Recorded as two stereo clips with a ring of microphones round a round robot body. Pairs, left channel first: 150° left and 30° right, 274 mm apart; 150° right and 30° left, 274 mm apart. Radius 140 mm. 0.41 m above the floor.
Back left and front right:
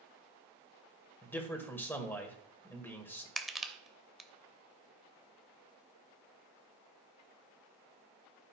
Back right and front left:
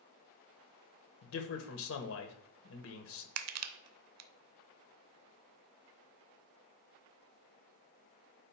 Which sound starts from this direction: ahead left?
Crushing, at 3.4 s.